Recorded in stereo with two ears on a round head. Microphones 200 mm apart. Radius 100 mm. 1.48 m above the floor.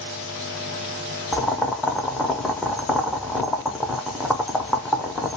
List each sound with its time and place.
1.3 s boiling: centre (ahead or behind), 0.5 m